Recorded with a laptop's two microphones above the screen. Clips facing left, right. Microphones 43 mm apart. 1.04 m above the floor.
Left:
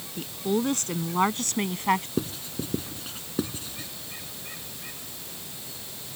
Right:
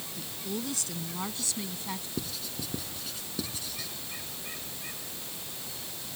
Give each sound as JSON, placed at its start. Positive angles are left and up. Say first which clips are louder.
{"t": 0.2, "sound": "a woman speaking", "louder": "left 11 dB", "side_deg": 45}
{"t": 2.2, "sound": "writing", "louder": "left 7 dB", "side_deg": 35}